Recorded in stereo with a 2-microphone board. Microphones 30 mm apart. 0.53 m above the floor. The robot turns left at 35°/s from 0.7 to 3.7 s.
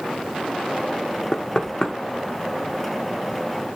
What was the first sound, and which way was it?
Knocking, 25° left (ahead or behind).